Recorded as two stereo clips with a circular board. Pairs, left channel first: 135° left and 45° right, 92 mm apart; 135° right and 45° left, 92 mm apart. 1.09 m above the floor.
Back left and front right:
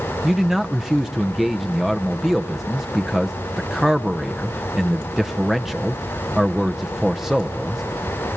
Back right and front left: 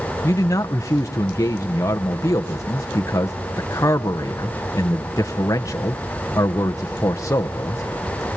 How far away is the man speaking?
About 0.7 m.